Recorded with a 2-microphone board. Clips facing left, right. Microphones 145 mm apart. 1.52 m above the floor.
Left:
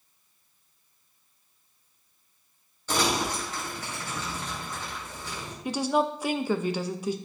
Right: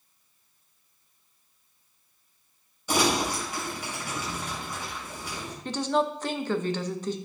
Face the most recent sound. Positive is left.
turn(degrees=10)  # may be behind; listen again after turning